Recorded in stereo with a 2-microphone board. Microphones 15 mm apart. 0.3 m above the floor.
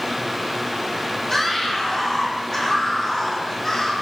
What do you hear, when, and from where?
1.3 s a scream: 20° left (ahead or behind), 10 m; by 3.9 s 30° left (ahead or behind), 10 m